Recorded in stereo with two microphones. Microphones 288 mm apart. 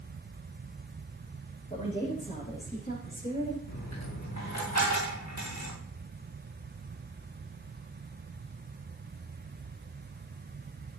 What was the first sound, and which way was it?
A woman speaking, 25° left (ahead or behind).